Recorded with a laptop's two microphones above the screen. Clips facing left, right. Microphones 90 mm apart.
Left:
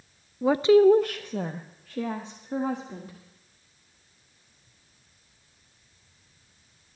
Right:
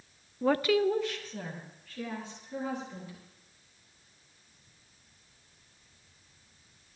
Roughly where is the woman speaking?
Centre.